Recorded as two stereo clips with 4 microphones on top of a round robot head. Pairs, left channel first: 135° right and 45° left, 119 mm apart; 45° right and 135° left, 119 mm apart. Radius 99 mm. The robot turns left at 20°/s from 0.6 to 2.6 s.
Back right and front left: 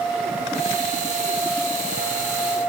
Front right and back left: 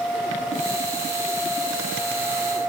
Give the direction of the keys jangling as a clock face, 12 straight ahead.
I don't hear keys jangling.